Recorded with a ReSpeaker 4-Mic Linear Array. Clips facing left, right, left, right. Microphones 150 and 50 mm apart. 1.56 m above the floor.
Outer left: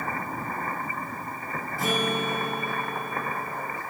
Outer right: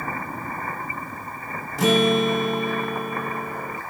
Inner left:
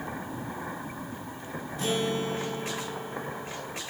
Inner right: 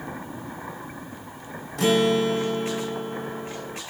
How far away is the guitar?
About 1.1 m.